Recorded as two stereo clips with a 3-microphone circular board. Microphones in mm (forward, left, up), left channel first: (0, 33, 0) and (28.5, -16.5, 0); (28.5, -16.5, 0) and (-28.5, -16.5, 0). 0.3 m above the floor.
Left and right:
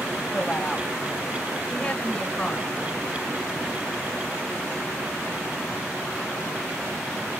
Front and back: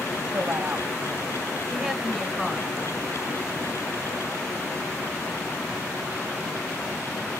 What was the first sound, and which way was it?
A woman speaking, 170° right.